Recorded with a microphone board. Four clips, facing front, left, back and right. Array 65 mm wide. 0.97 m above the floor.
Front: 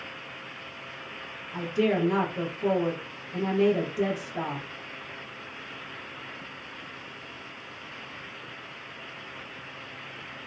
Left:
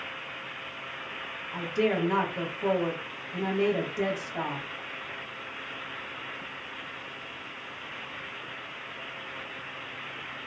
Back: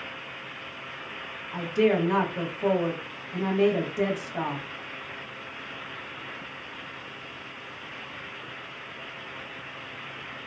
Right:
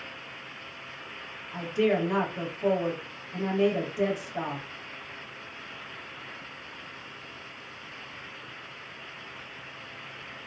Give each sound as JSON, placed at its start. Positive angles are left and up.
{"t": 1.5, "sound": "a woman speaking", "azimuth_deg": 155, "distance_m": 0.9}